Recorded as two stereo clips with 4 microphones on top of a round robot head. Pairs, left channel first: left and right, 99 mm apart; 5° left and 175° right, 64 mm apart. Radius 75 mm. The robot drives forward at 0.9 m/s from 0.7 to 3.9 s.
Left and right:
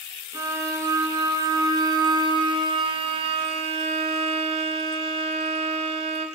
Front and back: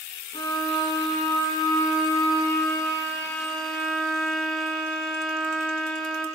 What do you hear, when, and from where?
0.3 s a violin: 30° right, 4 m; by 6.3 s 80° right, 2 m